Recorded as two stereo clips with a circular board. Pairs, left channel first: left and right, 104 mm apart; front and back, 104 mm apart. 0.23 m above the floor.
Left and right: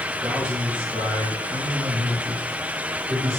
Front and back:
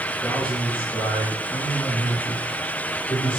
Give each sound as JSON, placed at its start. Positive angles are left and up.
{"t": 0.2, "sound": "a man speaking", "azimuth_deg": -90, "distance_m": 3.0}